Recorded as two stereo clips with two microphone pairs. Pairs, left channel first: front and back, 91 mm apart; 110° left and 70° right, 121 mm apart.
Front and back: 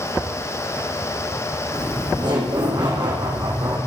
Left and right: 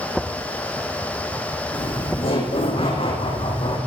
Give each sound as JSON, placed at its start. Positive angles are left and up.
{"t": 1.7, "sound": "laughter", "azimuth_deg": 145, "distance_m": 9.5}